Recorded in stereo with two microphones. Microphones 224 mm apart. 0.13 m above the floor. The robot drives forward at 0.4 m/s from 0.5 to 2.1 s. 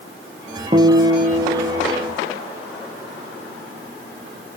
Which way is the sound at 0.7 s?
25° right (ahead or behind).